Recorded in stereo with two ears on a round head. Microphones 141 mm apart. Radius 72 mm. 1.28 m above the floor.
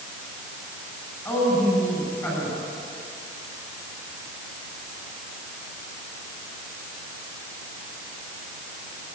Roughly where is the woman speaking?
Centre.